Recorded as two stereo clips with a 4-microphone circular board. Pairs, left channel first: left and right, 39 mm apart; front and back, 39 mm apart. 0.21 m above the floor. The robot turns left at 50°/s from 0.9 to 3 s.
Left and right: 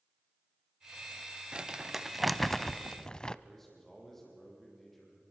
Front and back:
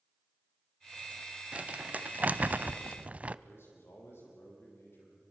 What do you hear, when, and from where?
1.5 s crumpling: 145° right, 0.5 m; by 3.4 s 140° left, 0.5 m
3.5 s a man speaking: 5° left, 7.5 m